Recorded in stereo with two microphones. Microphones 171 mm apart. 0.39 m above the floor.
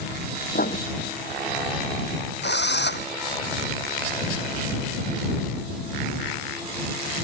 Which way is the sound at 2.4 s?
85° left.